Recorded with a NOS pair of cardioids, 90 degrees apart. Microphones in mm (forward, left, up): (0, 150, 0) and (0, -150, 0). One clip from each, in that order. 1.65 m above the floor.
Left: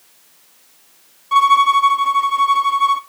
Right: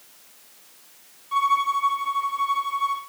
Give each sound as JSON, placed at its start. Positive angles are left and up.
{"t": 1.3, "sound": "a violin", "azimuth_deg": 50, "distance_m": 0.6}